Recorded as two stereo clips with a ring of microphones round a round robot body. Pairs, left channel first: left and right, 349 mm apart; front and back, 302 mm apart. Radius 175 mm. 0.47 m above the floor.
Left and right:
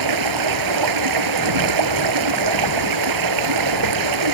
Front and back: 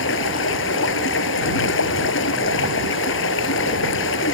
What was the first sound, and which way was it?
Running water, 60° right.